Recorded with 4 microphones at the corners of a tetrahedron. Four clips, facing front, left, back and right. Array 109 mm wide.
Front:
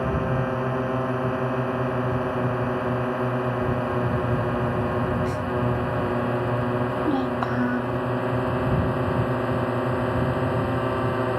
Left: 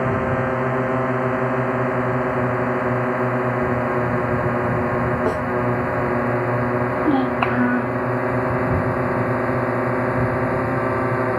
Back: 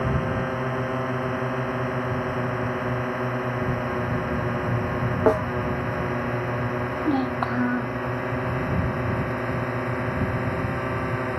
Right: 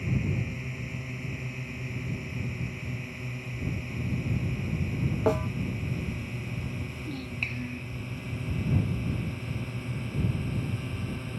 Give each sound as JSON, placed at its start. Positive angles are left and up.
{"t": 0.0, "sound": "a drone", "azimuth_deg": 85}
{"t": 5.3, "sound": "a snare drum", "azimuth_deg": 175}
{"t": 6.9, "sound": "a child speaking", "azimuth_deg": 100}